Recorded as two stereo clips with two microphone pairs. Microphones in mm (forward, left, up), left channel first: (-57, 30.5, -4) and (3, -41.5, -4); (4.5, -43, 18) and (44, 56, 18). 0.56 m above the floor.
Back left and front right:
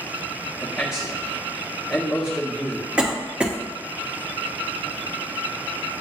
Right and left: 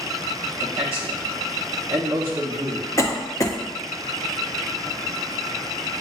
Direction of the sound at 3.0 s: 120° right.